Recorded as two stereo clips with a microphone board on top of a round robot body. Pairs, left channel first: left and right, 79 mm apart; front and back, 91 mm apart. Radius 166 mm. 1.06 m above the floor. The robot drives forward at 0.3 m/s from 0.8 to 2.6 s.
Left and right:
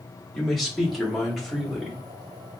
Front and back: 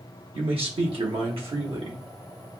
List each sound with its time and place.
0.3 s a man speaking: straight behind, 1.2 m